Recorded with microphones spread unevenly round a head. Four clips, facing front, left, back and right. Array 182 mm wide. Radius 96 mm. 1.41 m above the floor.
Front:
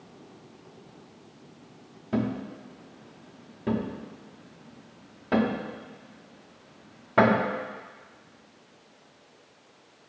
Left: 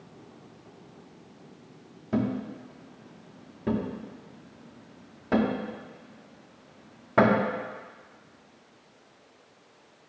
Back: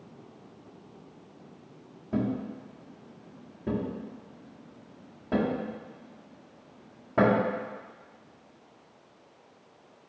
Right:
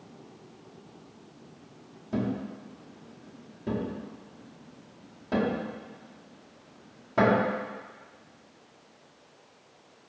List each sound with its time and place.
2.1 s a thud: 40° left, 1.1 m